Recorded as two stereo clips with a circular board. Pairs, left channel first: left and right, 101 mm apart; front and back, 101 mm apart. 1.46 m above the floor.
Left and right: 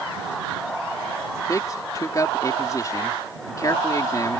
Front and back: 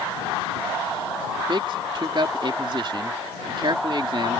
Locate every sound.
1.5 s a man speaking: 145° left